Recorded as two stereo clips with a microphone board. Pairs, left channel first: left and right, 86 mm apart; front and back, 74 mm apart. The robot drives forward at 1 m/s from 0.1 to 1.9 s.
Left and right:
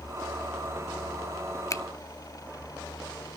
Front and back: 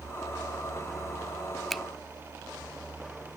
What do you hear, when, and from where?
1.7 s a finger snap: 85° left, 0.6 m; by 1.8 s 105° left, 0.6 m